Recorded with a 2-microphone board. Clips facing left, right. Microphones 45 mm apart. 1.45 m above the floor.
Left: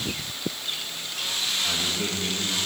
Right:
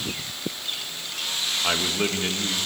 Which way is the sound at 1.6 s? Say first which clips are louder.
Right 3 dB; 65° right (ahead or behind).